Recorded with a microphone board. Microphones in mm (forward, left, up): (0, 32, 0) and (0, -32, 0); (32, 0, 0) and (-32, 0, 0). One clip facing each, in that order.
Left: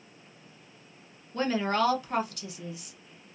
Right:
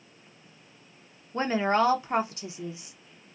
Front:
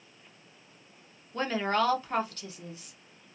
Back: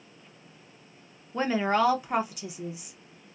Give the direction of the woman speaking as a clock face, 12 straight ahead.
4 o'clock.